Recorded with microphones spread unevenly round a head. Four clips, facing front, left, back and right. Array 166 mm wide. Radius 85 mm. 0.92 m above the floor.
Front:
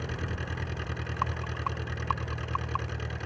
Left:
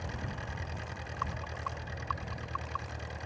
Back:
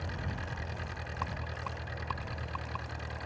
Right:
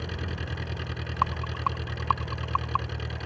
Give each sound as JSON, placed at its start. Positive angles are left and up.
{"t": 0.0, "sound": "an engine running", "azimuth_deg": -45}
{"t": 1.2, "sound": "a rattle", "azimuth_deg": -90}